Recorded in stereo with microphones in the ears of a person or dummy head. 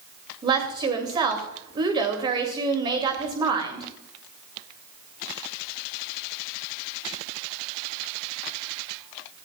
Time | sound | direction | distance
0.4 | a woman speaking | 20° right (ahead or behind) | 2.5 m